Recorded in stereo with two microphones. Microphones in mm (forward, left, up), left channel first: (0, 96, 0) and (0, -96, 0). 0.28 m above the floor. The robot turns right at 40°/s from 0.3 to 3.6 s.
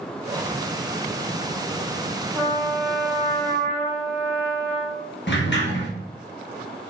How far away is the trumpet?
About 1.2 m.